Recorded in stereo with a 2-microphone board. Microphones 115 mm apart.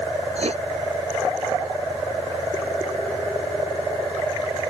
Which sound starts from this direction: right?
Writing, at 0.3 s.